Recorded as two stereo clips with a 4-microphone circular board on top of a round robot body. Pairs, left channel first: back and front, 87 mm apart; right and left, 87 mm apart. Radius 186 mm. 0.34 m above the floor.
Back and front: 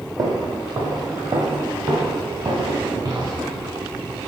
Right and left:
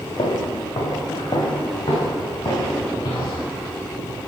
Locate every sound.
0.2 s footsteps: 45° right, 1.0 m; by 3.5 s 40° right, 3.5 m